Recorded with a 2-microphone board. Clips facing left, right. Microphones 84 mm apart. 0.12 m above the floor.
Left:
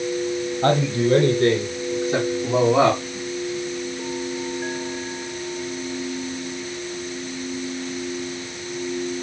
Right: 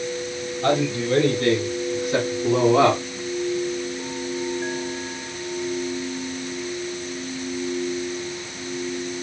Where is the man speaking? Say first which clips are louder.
Left 2 dB; 40° left (ahead or behind), 3.5 m; by 3.0 s 5° left (ahead or behind), 5.5 m.